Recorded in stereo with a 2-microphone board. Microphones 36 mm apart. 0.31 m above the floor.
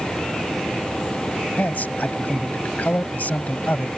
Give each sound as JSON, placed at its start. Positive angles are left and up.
{"t": 1.6, "sound": "a man speaking", "side_deg": 55}